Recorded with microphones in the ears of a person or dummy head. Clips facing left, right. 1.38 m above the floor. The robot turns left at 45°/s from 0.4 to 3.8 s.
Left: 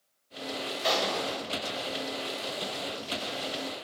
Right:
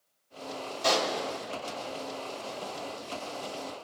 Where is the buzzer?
I don't hear a buzzer.